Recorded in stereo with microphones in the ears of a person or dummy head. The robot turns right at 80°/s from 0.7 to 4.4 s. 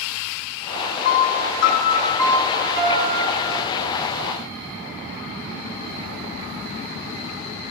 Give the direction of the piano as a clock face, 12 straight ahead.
10 o'clock.